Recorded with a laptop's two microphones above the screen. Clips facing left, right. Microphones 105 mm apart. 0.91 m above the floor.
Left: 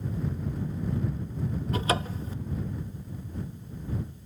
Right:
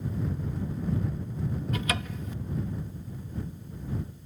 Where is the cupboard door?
35° left (ahead or behind).